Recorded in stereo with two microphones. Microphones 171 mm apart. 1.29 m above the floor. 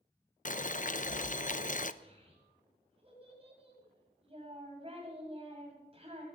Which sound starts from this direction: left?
Boiling, at 0.5 s.